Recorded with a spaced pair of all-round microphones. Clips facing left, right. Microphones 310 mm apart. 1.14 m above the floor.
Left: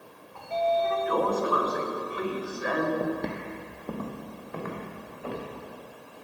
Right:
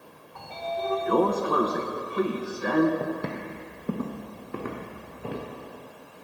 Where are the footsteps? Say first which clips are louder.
Left 1 dB; 5° left (ahead or behind), 1.4 m; by 5.5 s 40° right (ahead or behind), 4.5 m.